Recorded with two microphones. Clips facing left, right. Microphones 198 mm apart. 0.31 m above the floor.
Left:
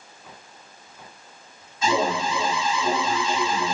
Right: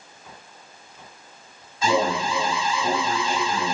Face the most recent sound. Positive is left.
turn(degrees=-35)  # may be behind; listen again after turning